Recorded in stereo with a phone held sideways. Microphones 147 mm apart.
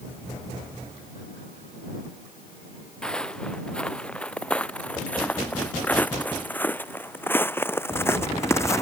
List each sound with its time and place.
3.0 s footsteps: 5° left (ahead or behind); by 8.8 s 20° left (ahead or behind)